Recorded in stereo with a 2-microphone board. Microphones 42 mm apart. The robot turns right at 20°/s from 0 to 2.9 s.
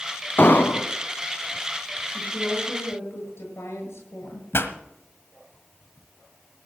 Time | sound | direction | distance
0.4 | an explosion | 50° left (ahead or behind) | 0.9 m
2.1 | a woman speaking | 75° left (ahead or behind) | 8 m
4.5 | a pop | 70° left (ahead or behind) | 1.5 m